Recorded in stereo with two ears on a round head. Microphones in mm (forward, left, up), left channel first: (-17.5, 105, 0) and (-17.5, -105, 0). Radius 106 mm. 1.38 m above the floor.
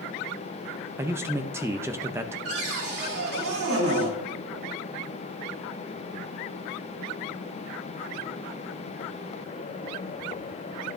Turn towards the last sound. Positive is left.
turn(degrees=-80)